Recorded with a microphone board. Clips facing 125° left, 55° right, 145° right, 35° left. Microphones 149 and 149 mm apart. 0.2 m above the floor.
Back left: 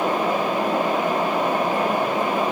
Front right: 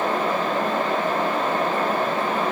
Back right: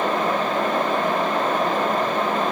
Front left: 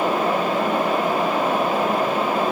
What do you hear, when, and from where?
Only background noise.